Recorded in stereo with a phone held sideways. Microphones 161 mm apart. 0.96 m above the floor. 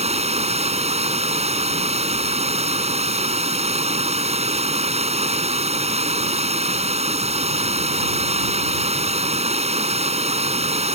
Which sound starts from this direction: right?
Running water, at 0.0 s.